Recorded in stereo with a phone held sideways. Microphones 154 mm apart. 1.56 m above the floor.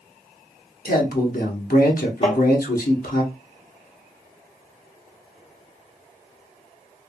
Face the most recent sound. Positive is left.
turn(degrees=40)  # may be behind; listen again after turning